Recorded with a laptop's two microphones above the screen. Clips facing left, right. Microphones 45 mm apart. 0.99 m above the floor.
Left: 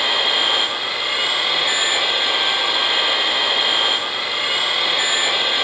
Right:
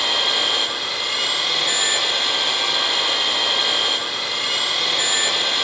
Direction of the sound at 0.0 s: 15° left (ahead or behind).